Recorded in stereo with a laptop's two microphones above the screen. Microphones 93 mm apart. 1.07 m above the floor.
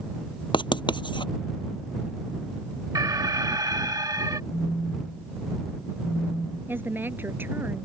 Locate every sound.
0.5 s writing: 60° left (ahead or behind)
3.0 s an alarm: 45° right (ahead or behind)
4.5 s a phone buzzing: 15° left (ahead or behind)
6.7 s a woman speaking: 20° right (ahead or behind)